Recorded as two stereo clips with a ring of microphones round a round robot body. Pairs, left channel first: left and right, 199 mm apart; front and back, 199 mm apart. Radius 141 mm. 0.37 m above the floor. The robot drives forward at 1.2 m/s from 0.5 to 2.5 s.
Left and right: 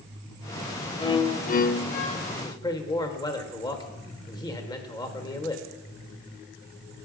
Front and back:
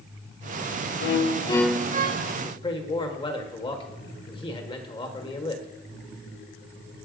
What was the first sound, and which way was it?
A violin, 20° left.